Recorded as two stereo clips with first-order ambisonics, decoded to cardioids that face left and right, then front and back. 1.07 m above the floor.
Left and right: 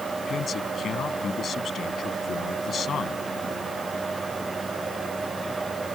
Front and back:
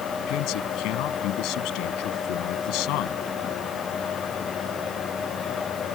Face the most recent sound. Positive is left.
turn(degrees=30)